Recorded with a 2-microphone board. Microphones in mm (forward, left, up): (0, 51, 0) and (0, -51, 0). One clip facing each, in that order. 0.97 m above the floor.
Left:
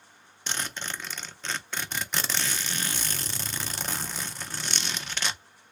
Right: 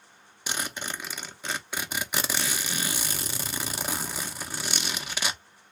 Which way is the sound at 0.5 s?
10° right (ahead or behind).